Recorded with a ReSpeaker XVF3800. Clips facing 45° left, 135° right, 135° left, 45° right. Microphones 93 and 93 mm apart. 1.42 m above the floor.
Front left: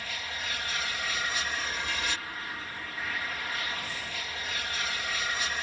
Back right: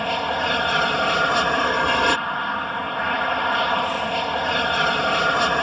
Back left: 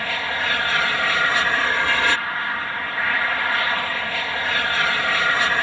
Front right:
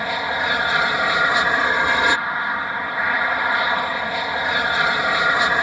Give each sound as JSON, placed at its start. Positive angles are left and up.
{"t": 0.0, "sound": "an aircraft", "azimuth_deg": -115}